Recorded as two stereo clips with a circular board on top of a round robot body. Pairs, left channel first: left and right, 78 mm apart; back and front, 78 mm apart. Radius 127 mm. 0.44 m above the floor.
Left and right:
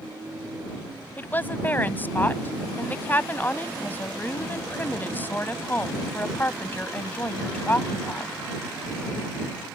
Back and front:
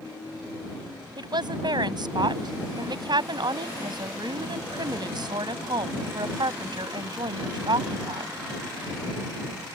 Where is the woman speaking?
25° left.